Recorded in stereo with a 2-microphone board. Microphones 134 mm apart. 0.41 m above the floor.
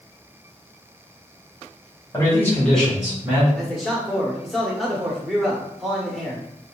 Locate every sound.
2.1 s a man speaking: 25° left (ahead or behind), 1.8 m; by 3.5 s 25° right (ahead or behind), 1.5 m
3.6 s a man speaking: centre (ahead or behind), 0.9 m